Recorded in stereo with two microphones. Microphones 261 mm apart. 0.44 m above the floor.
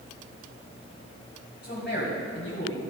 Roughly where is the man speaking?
Left.